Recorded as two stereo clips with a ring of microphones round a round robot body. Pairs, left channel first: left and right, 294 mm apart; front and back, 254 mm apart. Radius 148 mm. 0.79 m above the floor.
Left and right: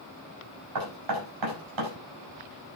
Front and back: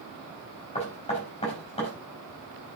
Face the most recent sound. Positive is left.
turn(degrees=-70)